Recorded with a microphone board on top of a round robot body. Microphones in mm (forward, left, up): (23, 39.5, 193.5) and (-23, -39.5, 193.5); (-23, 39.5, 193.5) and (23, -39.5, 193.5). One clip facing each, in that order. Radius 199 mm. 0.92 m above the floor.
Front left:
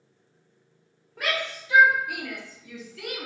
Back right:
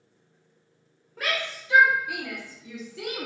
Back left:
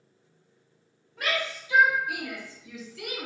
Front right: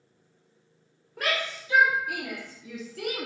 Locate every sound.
1.2 s a shout: 30° right, 1.7 m; by 3.3 s 80° right, 0.8 m